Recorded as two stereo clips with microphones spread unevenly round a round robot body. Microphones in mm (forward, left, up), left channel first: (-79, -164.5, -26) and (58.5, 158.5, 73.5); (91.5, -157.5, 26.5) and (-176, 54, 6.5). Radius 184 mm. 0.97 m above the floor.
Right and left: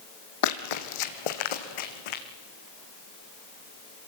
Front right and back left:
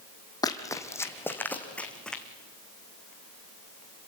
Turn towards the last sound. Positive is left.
turn(degrees=-125)